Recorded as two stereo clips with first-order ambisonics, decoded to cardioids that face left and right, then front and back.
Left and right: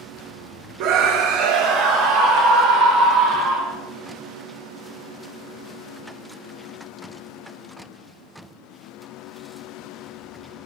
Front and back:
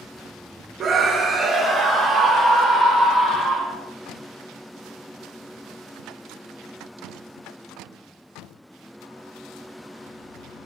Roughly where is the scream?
Behind right.